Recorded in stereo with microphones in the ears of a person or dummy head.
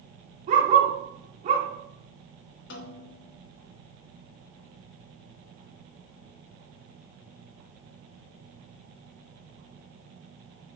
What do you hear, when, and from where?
0.5 s a dog barking: 40° right (ahead or behind), 1.9 m
2.7 s a snare drum: 60° left (ahead or behind), 0.8 m